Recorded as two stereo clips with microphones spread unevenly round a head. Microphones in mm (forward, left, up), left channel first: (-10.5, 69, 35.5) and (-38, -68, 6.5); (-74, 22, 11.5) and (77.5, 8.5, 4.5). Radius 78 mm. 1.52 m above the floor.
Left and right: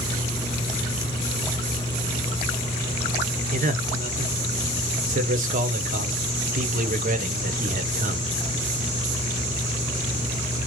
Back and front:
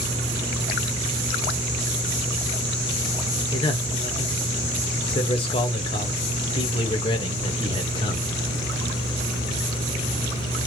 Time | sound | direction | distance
3.5 | a man speaking | 125° right | 0.9 m